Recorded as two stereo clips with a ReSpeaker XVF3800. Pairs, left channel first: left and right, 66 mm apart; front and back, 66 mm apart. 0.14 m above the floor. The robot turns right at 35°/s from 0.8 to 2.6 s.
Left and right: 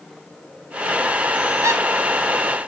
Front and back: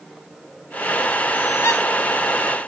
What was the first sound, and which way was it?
A squeak, 50° right.